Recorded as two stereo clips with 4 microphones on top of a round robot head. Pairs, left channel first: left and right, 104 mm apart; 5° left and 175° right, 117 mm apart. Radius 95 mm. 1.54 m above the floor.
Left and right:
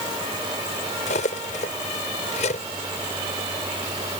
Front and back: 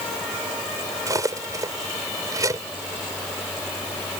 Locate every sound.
1.1 s cutlery clinking: 125° left